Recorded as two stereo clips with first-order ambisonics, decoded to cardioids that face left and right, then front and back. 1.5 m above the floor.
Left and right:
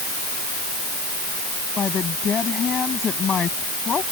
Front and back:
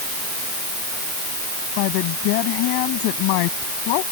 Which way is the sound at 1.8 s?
20° left.